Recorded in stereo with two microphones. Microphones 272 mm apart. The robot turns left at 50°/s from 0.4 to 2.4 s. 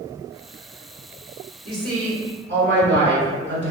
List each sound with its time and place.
1.6 s a woman speaking: 90° right, 1.3 m; by 3.7 s 125° right, 1.3 m